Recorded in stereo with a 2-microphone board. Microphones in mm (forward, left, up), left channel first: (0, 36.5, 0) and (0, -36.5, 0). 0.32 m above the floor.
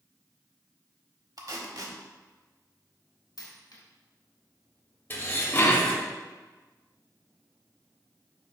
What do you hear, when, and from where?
1.4 s tape being pulled: 60° right (ahead or behind), 0.7 m
3.4 s a dropped coin: 65° left (ahead or behind), 1.1 m
5.1 s dishes clattering: 30° left (ahead or behind), 0.7 m